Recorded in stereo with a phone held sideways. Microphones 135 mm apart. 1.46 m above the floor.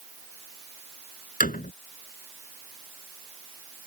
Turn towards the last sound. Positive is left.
turn(degrees=75)  # may be behind; listen again after turning